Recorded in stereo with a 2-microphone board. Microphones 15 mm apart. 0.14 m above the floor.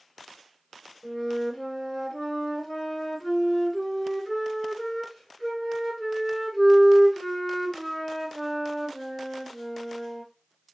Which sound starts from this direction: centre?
A flute, at 1.0 s.